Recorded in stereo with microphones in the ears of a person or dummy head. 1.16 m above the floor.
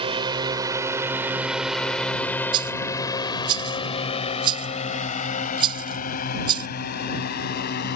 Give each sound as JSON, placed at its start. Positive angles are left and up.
{"t": 0.0, "sound": "a drone", "side_deg": -30}
{"t": 2.5, "sound": "a rattle", "side_deg": -30}